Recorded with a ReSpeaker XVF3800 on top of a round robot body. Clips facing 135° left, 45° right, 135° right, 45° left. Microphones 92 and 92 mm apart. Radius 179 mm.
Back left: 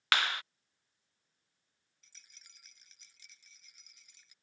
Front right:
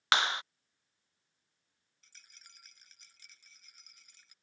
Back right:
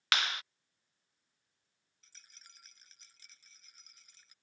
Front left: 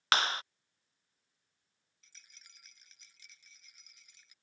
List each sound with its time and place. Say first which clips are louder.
0.1 s a clap: front right 2 dB, front left 4 dB; 10° left
2.0 s a rattle: front right 3 dB, back right 1 dB; 85° right